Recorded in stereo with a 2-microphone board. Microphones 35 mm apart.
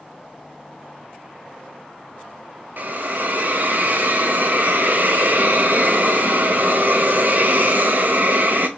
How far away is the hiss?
About 0.5 m.